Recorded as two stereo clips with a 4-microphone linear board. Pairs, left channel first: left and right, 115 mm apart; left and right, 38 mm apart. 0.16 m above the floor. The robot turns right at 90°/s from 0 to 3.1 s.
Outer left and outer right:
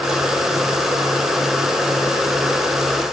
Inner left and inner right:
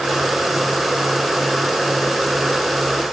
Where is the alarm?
I don't hear an alarm.